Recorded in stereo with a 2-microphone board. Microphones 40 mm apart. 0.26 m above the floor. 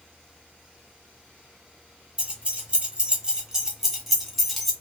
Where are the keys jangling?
30° right (ahead or behind), 1.1 m; by 4.7 s centre (ahead or behind), 1.1 m.